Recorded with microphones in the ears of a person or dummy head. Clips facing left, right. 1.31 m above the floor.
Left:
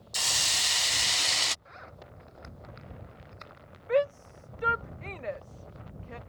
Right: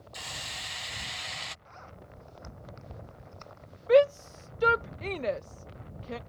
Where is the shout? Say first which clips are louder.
Right 6 dB; 55° right (ahead or behind).